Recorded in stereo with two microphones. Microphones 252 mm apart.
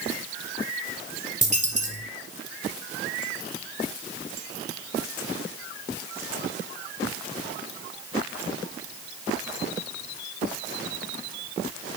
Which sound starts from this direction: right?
A dropped coin, at 1.4 s.